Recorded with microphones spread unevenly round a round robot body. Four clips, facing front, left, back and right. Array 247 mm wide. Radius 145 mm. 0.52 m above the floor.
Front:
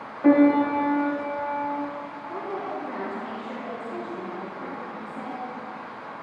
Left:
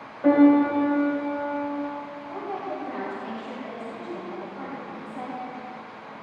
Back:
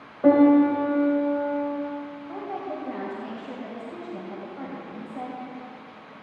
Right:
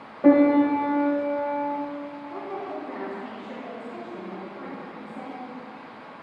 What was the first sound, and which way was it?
A piano, 145° right.